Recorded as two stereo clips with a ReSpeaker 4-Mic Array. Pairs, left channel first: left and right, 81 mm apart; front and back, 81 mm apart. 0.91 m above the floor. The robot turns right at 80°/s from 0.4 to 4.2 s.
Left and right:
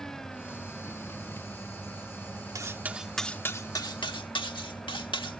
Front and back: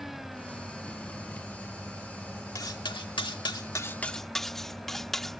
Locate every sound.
2.5 s cutlery clinking: 45° right; by 5.4 s 85° left